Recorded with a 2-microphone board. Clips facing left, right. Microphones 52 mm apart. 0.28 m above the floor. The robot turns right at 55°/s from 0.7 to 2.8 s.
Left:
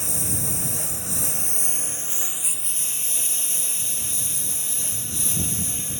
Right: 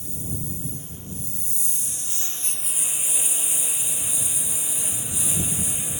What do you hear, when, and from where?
0.0 s a lawn mower: 70° left; by 6.0 s 170° right